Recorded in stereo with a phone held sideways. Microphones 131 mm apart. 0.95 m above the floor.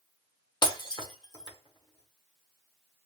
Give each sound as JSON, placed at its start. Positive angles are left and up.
{"t": 0.6, "sound": "breaking glass", "side_deg": 35, "distance_m": 1.0}